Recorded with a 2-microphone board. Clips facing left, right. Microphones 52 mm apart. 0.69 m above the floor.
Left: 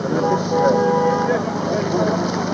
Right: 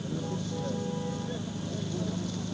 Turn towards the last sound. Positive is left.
turn(degrees=80)